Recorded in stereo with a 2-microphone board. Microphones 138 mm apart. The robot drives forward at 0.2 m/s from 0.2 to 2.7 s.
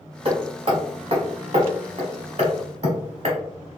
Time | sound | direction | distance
0.2 | hammering | 40° right (ahead or behind) | 1.1 m